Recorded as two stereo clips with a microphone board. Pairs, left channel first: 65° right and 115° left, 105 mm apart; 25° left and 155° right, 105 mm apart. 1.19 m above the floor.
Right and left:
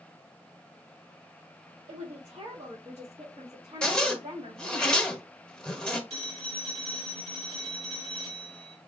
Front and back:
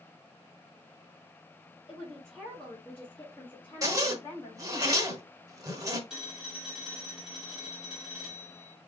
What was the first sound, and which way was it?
A woman speaking, 115° left.